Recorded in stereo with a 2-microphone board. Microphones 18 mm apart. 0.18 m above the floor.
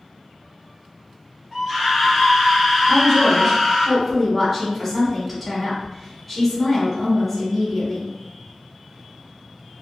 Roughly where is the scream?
Centre.